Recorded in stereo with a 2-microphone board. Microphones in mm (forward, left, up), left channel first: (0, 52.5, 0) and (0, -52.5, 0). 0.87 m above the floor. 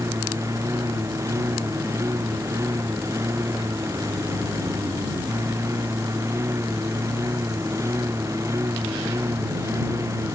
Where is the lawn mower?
30° right (ahead or behind).